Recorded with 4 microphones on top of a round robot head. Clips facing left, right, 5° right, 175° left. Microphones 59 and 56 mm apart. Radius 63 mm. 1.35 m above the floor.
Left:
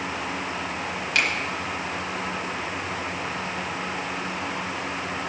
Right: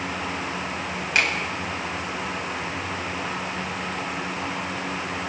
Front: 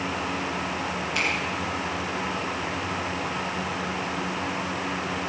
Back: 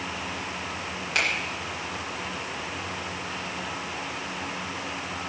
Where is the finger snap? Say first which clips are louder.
Right 2 dB, back 2 dB; 150° right, 4.5 m.